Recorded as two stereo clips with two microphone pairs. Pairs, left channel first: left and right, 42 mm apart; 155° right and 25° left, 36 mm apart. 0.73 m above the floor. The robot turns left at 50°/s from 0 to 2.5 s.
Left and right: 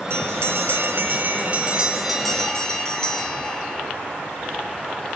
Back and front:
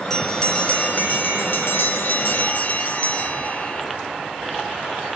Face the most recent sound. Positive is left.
turn(degrees=165)